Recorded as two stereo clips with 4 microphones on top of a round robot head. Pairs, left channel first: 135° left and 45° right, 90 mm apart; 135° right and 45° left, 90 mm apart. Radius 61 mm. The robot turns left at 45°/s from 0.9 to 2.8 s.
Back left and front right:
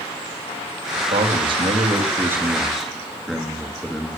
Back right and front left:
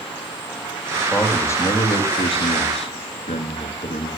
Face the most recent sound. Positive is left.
turn(degrees=-135)